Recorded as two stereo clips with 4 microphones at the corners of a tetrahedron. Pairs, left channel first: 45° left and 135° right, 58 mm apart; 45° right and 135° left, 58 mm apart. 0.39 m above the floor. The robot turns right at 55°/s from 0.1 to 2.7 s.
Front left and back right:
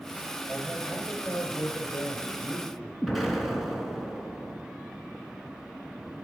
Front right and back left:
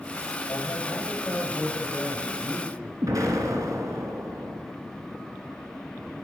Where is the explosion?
135° left, 2.5 m.